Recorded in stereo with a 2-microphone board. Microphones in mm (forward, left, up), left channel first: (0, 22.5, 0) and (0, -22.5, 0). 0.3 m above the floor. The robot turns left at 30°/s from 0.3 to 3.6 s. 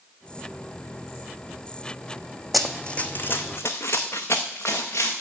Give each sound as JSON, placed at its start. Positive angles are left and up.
{"t": 2.5, "sound": "running footsteps", "side_deg": 0, "distance_m": 0.7}